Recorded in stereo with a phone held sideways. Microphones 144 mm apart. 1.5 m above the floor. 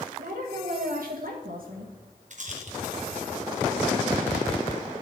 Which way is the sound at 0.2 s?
80° right.